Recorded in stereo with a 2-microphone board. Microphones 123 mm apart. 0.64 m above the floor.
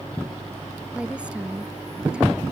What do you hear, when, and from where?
0.9 s a woman speaking: 10° right (ahead or behind)